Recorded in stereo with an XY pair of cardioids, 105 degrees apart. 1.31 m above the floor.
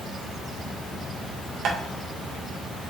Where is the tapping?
60° right, 0.9 m.